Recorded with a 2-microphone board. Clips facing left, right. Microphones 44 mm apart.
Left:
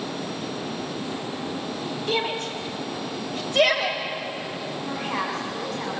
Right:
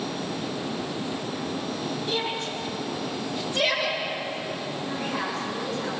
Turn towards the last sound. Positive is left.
turn(degrees=85)